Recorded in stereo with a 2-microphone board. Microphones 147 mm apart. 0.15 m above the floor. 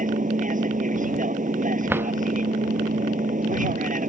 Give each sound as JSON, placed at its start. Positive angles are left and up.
{"t": 0.0, "sound": "an aircraft", "side_deg": -65}
{"t": 1.9, "sound": "a drawer", "side_deg": -15}